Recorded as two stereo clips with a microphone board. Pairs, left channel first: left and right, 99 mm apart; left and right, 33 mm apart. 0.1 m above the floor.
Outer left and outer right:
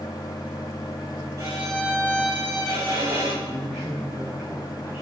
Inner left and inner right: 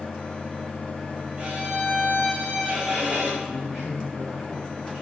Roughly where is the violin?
Right.